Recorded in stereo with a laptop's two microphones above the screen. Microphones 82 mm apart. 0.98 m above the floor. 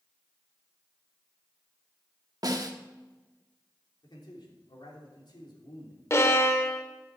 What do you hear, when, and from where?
2.4 s a snare drum: 50° right (ahead or behind), 1.1 m
4.0 s a man speaking: 65° left (ahead or behind), 3 m
6.1 s a violin: 35° left (ahead or behind), 0.9 m